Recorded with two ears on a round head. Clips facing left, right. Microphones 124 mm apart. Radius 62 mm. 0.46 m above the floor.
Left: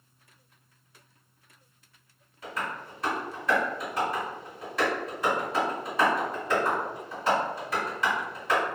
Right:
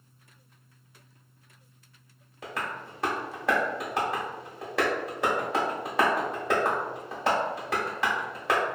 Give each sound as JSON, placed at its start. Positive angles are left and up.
{"t": 2.4, "sound": "tapping", "side_deg": -55, "distance_m": 0.9}